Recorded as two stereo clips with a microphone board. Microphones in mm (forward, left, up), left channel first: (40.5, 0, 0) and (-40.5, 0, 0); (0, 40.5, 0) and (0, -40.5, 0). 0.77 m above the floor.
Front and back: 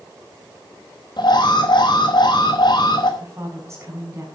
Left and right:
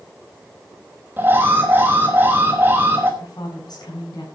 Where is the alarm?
25° right, 4.5 m.